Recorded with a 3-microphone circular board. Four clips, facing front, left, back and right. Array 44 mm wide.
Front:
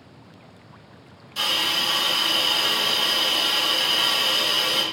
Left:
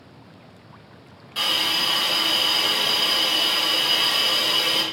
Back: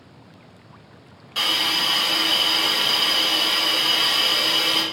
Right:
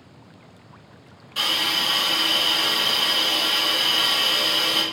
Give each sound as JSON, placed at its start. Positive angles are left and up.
{"t": 1.4, "sound": "a hiss", "azimuth_deg": 170, "distance_m": 1.8}